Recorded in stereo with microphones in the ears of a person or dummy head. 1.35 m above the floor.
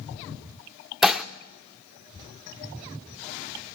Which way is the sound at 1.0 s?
Centre (ahead or behind).